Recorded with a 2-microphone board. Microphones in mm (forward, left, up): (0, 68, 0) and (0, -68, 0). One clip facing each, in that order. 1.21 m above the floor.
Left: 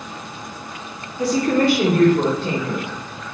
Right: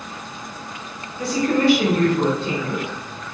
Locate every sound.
1.2 s a woman speaking: 35° left (ahead or behind), 0.9 m; by 3.4 s 65° left (ahead or behind), 2.5 m